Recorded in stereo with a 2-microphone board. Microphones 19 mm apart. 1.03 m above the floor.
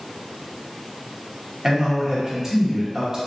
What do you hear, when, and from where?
1.6 s a man speaking: 25° right (ahead or behind), 1.0 m